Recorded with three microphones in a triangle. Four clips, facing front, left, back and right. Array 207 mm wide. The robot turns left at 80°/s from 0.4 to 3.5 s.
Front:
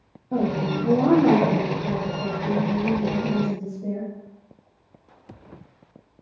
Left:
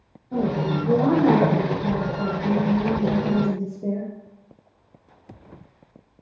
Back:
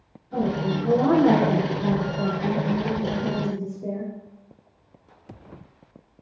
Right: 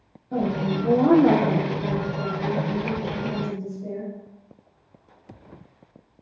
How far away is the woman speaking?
About 4 m.